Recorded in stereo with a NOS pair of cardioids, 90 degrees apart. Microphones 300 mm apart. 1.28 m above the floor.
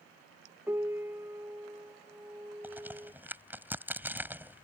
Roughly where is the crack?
Ahead.